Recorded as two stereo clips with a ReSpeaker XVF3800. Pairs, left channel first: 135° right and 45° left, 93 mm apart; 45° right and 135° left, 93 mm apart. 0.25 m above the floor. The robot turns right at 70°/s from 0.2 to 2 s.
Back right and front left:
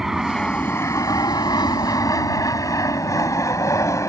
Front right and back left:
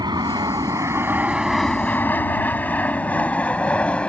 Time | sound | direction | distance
0.0 | an aircraft | 130° left | ?